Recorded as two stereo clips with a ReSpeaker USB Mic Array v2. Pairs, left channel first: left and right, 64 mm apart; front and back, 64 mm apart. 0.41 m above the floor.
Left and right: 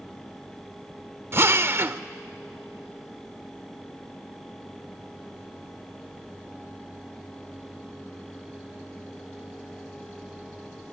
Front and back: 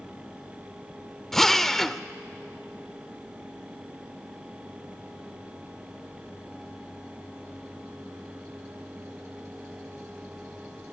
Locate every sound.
1.3 s a drill: 80° right, 0.5 m